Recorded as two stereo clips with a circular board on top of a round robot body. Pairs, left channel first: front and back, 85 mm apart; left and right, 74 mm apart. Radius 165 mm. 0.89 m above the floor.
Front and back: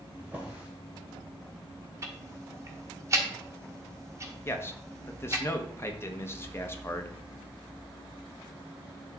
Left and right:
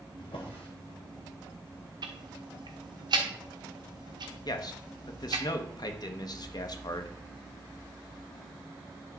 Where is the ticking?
120° right, 1.0 m.